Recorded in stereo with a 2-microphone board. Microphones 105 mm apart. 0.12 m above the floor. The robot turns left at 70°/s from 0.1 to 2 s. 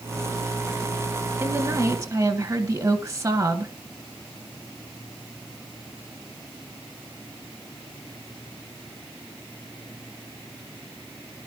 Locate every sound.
1.4 s a woman speaking: 25° right (ahead or behind), 1.6 m